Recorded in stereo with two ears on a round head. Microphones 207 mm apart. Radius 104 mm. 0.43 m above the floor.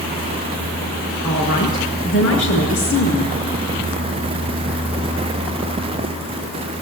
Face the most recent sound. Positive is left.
turn(degrees=55)  # may be behind; listen again after turning